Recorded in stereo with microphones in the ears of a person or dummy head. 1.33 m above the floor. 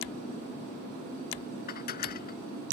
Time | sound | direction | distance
1.7 | dishes clattering | 50° left (ahead or behind) | ?